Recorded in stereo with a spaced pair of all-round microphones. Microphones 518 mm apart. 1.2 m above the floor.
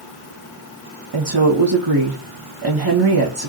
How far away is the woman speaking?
About 1.0 m.